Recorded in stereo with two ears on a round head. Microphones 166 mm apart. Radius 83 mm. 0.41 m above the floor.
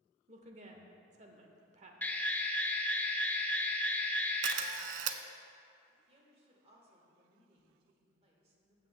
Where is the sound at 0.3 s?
40° right (ahead or behind), 1.0 m.